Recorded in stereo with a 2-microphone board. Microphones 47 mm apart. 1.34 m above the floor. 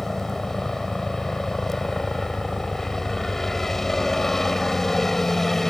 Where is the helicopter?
10° left (ahead or behind).